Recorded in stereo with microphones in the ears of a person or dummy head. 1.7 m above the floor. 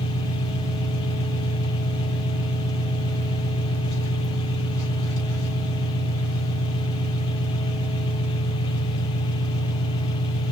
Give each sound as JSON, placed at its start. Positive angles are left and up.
{"t": 0.0, "sound": "an engine running", "side_deg": 20, "distance_m": 1.2}